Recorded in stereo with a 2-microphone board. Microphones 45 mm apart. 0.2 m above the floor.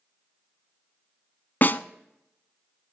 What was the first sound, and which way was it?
A snare drum, 45° left (ahead or behind).